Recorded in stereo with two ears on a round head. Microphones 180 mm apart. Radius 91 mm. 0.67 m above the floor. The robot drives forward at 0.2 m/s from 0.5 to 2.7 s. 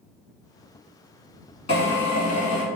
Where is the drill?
25° left (ahead or behind), 1.3 m.